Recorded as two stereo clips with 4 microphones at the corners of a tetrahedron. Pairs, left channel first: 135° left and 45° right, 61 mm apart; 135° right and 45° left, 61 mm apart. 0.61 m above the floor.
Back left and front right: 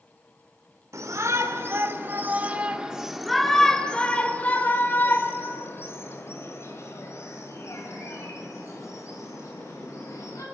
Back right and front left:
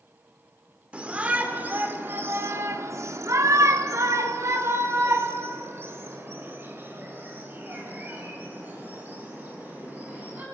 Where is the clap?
No clap in this recording.